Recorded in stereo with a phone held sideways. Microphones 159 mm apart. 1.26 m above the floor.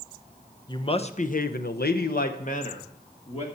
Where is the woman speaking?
25° left (ahead or behind), 1.0 m; by 3.5 s 40° left (ahead or behind), 1.9 m.